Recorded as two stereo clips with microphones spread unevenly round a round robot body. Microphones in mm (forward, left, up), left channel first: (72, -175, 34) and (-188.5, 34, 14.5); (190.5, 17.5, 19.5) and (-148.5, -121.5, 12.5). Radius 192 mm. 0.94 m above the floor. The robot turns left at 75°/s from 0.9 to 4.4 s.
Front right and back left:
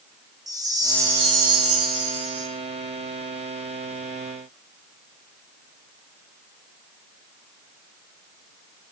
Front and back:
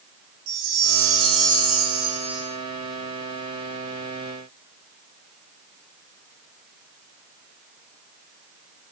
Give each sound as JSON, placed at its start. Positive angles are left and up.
{"t": 0.5, "sound": "a chime", "azimuth_deg": -140, "distance_m": 3.0}